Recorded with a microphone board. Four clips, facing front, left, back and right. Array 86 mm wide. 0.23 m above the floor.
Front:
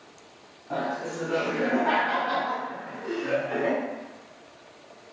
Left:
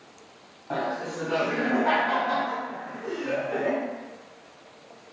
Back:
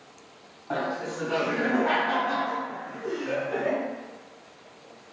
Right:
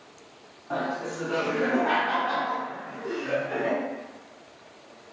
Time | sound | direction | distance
0.7 | laughter | 135° left | 1.3 m